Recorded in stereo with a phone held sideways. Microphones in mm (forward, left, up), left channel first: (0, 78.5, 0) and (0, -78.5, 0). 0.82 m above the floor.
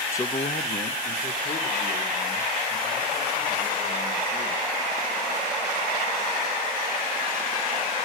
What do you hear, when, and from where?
0.1 s a man speaking: 15° left (ahead or behind), 0.5 m; by 4.7 s 80° left, 7 m